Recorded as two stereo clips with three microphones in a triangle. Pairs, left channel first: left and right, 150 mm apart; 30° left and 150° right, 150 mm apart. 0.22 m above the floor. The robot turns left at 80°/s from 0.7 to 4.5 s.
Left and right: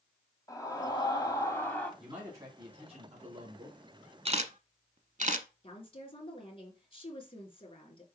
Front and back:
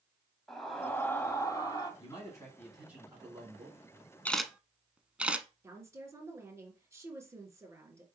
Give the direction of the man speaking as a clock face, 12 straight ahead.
12 o'clock.